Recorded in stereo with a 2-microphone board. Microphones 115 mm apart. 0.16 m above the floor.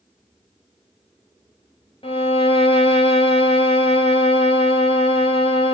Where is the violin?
55° left (ahead or behind), 0.7 m.